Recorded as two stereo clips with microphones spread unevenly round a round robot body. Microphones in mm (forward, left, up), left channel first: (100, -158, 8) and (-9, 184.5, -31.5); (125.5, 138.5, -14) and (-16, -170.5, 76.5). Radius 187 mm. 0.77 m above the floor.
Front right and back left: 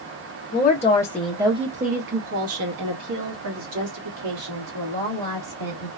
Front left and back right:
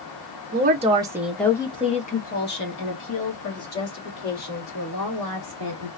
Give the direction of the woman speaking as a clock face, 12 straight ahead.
2 o'clock.